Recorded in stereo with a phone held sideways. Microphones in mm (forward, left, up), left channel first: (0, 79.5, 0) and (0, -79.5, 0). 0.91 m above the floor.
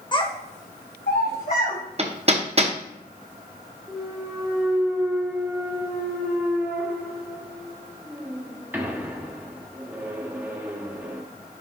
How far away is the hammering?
About 0.7 m.